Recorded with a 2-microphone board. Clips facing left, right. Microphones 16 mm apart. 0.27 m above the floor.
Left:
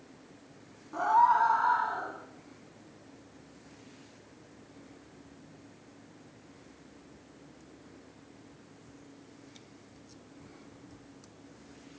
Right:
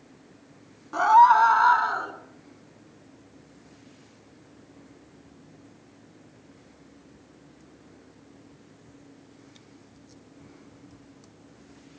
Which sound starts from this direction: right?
A scream, at 0.9 s.